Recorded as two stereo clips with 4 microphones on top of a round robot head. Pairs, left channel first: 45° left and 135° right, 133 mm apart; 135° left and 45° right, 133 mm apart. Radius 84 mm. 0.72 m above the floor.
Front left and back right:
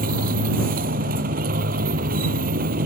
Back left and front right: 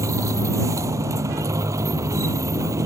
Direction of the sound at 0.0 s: 110° right.